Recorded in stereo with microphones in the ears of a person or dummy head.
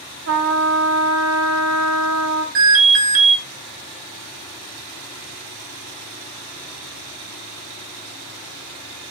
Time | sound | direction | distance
0.3 | a trumpet | 70° right (ahead or behind) | 1.0 m
2.5 | an alarm | 60° right (ahead or behind) | 1.5 m